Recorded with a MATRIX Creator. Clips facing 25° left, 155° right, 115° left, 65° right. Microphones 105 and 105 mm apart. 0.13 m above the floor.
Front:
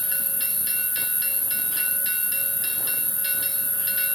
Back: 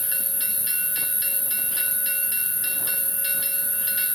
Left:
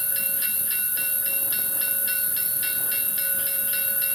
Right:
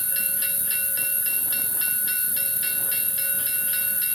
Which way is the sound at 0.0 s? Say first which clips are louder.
Front 1 dB, even; 80° left.